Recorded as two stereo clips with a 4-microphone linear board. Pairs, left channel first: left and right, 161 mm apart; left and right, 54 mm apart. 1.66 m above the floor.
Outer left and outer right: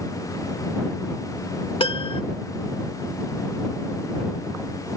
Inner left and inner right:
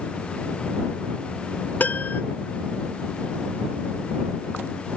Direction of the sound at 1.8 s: 35° left (ahead or behind).